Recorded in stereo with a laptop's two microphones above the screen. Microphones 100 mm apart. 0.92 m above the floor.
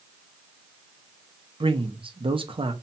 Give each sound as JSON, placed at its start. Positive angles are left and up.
{"t": 1.6, "sound": "a man speaking", "side_deg": -60, "distance_m": 0.6}